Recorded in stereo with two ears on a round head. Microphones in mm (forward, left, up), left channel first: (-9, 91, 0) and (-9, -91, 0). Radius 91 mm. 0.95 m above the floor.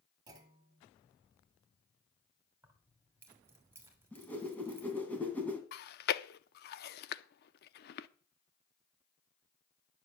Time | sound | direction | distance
0.3 | a clunk | 20° right (ahead or behind) | 2 m
2.6 | keys jangling | 10° right (ahead or behind) | 3 m
4.1 | a whoosh | 10° left (ahead or behind) | 2.5 m
5.7 | chewing | 50° left (ahead or behind) | 0.6 m